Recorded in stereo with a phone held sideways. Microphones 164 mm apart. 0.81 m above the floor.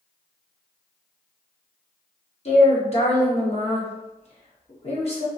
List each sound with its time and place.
2.5 s a woman speaking: 45° left (ahead or behind), 1.0 m